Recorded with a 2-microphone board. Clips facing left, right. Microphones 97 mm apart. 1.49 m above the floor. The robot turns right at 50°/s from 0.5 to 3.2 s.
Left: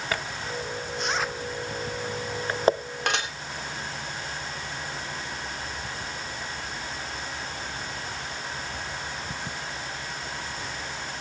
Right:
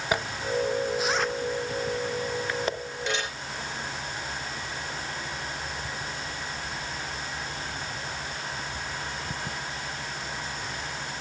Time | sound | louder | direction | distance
0.1 | a zipper | right 6 dB | 20° right (ahead or behind) | 0.6 m
3.1 | dishes clattering | left 2 dB | 70° left (ahead or behind) | 3 m